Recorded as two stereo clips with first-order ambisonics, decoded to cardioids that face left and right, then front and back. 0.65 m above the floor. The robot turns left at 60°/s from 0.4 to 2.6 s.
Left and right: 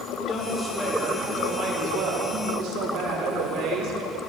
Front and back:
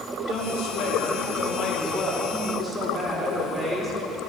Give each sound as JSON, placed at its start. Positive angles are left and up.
{"t": 0.3, "sound": "a woman speaking", "azimuth_deg": 25, "distance_m": 2.5}